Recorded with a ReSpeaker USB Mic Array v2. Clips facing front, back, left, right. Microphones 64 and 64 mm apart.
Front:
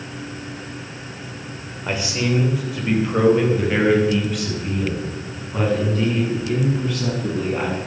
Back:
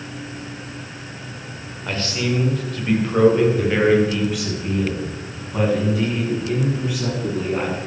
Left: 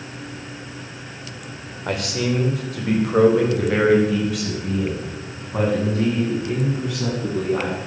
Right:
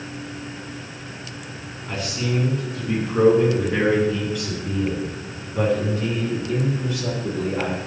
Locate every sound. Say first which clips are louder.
1.9 s a man speaking: front 1 dB, left 4 dB; 75° left, 3 m; by 7.8 s 100° left, 9 m